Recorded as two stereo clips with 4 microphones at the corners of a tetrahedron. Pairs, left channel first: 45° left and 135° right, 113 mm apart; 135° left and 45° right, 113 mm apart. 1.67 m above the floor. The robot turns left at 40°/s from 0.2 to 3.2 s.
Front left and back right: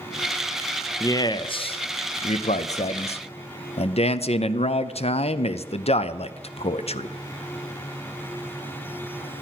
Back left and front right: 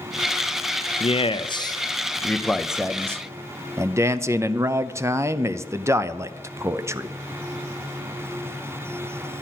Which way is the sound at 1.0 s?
110° left.